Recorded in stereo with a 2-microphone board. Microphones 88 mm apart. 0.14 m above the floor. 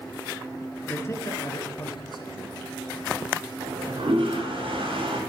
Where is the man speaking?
25° left (ahead or behind), 1.6 m; by 3.1 s 65° left (ahead or behind), 3.5 m.